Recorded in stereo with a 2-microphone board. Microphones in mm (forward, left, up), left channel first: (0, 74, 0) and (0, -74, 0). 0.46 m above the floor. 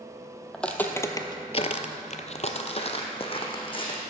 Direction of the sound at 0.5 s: 5° left (ahead or behind).